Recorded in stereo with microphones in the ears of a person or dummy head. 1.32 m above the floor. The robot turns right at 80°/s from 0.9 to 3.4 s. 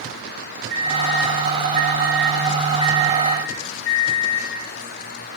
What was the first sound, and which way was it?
A microwave, 125° right.